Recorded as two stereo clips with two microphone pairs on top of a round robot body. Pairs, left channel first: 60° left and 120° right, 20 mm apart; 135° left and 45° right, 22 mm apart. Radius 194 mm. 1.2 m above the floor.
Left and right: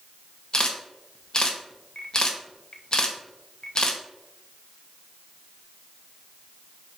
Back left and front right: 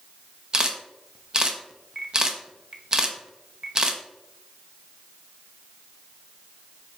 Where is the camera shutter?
15° left, 0.6 m.